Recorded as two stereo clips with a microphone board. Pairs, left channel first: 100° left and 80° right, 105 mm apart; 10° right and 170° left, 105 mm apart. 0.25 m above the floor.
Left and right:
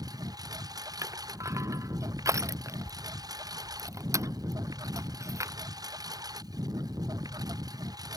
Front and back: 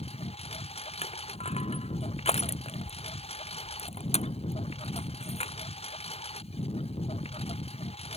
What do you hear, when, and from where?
0.0 s a lawn mower: 25° right
1.0 s crushing: 20° right